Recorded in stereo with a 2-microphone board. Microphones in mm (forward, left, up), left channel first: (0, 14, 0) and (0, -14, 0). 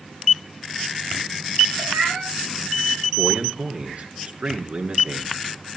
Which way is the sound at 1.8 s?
60° right (ahead or behind).